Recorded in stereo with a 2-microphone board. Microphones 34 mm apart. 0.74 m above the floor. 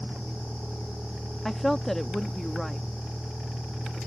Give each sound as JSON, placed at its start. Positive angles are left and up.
{"t": 0.0, "sound": "a vehicle", "side_deg": -30}
{"t": 1.4, "sound": "a woman speaking", "side_deg": 10}